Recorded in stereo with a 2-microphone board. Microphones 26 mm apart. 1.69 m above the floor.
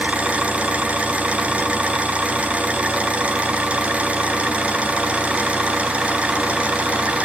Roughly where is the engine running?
Right.